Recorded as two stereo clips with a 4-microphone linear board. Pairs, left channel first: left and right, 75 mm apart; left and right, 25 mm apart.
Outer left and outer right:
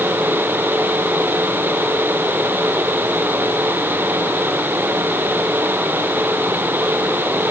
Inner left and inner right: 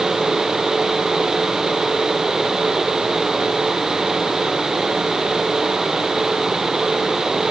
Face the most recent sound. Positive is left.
No sound to turn to.